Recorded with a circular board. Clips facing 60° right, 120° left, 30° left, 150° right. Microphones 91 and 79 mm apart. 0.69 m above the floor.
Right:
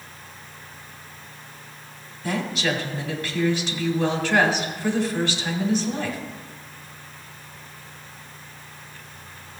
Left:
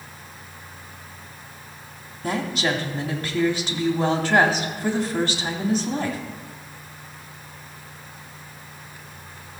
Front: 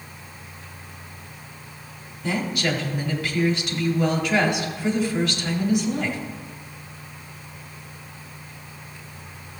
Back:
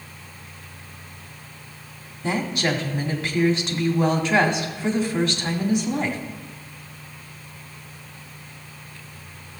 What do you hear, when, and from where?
2.2 s a woman speaking: 155° left, 1.8 m